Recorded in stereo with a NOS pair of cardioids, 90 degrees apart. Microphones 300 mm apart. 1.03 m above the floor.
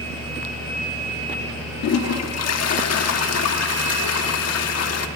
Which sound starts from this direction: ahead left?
A toilet flushing, at 1.8 s.